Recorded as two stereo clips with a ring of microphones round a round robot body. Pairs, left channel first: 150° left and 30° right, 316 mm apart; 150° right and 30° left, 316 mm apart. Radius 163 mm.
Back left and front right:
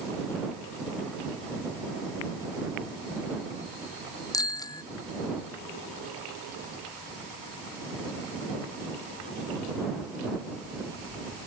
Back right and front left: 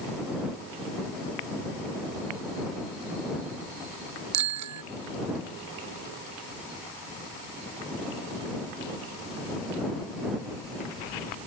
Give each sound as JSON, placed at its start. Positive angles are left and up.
{"t": 4.3, "sound": "a bicycle bell", "azimuth_deg": 70}